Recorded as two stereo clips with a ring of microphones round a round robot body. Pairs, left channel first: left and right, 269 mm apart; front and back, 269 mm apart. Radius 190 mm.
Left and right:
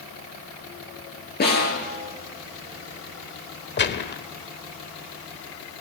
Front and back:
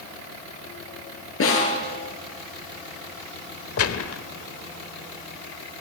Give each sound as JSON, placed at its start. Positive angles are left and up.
{"t": 1.4, "sound": "a snare drum", "azimuth_deg": 35, "distance_m": 9.0}
{"t": 3.8, "sound": "a gunshot", "azimuth_deg": 35, "distance_m": 1.3}